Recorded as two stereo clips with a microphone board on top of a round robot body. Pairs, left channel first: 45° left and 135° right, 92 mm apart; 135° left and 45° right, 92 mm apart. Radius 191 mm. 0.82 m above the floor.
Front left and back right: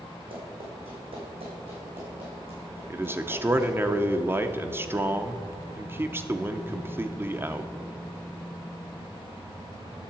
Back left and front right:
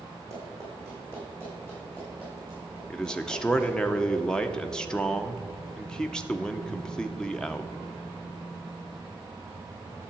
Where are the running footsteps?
105° right, 2.5 m; by 3.9 s 120° right, 5 m.